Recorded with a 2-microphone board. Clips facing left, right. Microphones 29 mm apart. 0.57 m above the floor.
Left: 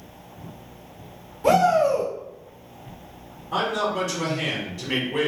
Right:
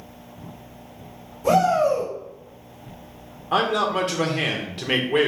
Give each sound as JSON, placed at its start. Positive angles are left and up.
{"t": 1.4, "sound": "a shout", "side_deg": 55, "distance_m": 2.0}
{"t": 3.5, "sound": "a man speaking", "side_deg": -55, "distance_m": 1.3}